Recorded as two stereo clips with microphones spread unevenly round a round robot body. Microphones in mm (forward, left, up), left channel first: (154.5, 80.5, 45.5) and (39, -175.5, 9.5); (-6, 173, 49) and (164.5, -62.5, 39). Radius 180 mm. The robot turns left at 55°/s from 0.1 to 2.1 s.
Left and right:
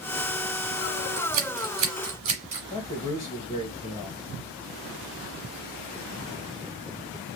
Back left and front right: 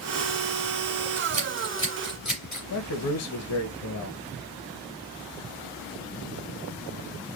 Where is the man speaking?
145° left, 0.7 m.